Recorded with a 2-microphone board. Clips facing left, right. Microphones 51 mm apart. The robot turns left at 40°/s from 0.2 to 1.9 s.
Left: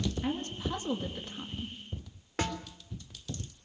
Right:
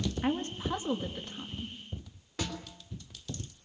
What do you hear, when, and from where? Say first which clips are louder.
0.2 s a woman speaking: right 2 dB; 140° right, 2.5 m; by 1.8 s 160° left, 2.5 m
2.4 s a snare drum: left 4 dB; 45° left (ahead or behind), 3 m